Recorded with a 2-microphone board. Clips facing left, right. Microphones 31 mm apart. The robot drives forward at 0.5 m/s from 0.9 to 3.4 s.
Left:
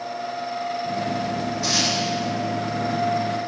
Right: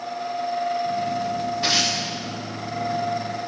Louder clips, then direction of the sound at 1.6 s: Right 1 dB; 40° right (ahead or behind).